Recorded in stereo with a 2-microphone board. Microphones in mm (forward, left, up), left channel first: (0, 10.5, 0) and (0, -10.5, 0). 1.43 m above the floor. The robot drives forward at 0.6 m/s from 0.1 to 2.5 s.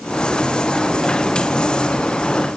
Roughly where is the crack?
I don't hear a crack.